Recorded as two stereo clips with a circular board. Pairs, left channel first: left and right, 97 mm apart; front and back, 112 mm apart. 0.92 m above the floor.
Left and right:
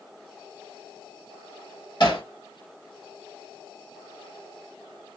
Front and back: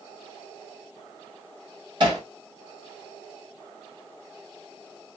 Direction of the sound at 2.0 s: 135° left.